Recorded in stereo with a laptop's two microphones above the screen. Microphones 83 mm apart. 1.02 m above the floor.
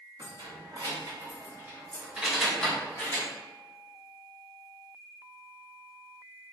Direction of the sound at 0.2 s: 60° right (ahead or behind).